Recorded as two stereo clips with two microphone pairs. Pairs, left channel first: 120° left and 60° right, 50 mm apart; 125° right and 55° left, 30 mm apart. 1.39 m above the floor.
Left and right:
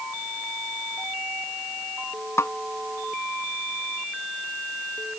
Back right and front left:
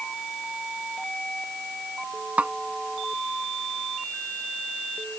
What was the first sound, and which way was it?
A snare drum, 95° left.